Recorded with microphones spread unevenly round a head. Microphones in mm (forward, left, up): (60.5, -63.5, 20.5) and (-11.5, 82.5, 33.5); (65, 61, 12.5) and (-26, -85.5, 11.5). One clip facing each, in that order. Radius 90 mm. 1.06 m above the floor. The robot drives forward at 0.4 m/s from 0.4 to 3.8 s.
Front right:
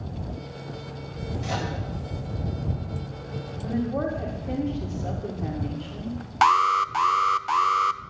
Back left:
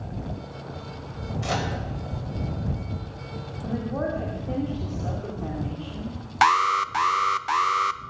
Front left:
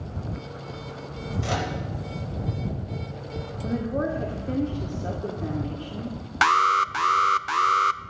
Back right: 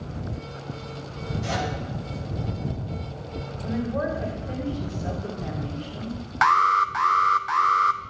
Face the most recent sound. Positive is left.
turn(degrees=30)